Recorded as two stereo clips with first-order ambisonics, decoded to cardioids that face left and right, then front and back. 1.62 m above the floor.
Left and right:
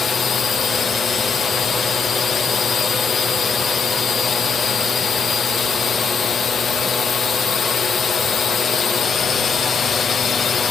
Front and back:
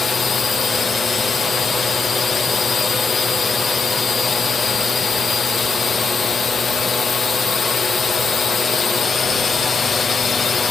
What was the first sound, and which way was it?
A drone, 50° left.